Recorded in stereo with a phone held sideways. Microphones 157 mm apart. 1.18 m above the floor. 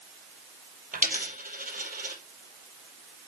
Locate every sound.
0.9 s a dropped coin: 60° right (ahead or behind), 2.5 m